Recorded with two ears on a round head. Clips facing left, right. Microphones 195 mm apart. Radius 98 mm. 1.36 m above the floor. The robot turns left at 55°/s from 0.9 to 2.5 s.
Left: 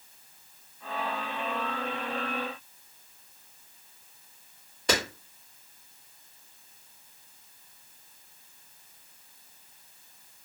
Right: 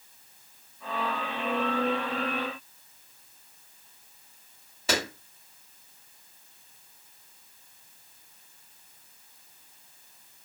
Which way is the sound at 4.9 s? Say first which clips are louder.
Left 1 dB; 5° right (ahead or behind).